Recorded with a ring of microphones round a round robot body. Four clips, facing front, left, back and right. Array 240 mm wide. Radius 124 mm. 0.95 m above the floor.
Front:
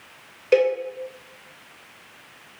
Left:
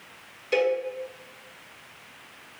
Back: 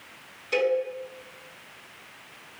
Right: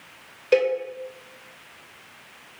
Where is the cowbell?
35° right, 2 m.